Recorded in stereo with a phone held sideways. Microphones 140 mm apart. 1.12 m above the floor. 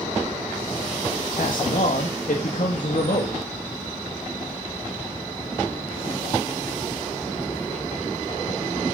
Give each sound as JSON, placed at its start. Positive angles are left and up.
{"t": 1.3, "sound": "a man speaking", "side_deg": 75, "distance_m": 1.7}